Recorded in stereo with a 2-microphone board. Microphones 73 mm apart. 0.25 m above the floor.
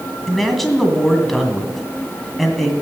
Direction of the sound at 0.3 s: 5° left (ahead or behind).